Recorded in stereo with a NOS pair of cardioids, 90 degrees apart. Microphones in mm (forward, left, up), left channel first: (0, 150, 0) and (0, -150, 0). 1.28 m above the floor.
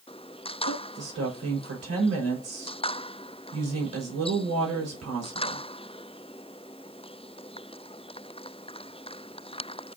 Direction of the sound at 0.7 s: 55° right.